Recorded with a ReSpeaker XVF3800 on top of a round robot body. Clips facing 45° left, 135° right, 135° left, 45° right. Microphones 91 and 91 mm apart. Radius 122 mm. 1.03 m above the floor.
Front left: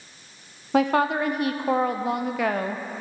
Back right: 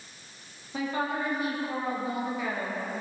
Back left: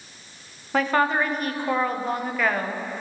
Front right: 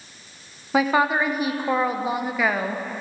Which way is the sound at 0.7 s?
35° left.